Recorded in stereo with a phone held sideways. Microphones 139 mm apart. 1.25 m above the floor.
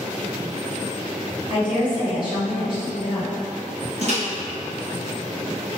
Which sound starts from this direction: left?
A woman speaking, at 1.5 s.